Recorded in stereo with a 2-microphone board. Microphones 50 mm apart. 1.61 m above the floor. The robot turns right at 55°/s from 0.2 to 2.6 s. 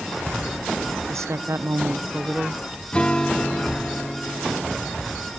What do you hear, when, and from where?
1.1 s a woman speaking: 100° right, 0.6 m; by 2.8 s 15° right, 0.6 m
2.9 s a guitar: 20° left (ahead or behind), 1.6 m